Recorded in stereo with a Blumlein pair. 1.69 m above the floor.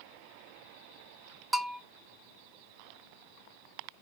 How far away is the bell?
About 0.6 m.